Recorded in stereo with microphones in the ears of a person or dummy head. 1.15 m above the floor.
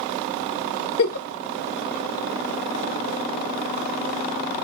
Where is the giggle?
70° left (ahead or behind), 0.8 m.